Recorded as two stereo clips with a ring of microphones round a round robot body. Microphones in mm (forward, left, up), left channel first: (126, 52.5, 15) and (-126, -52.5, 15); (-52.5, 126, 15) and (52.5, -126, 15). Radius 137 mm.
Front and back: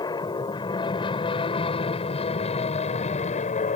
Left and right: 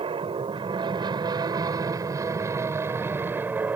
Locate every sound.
0.0 s an aircraft: 30° right; by 3.8 s 10° left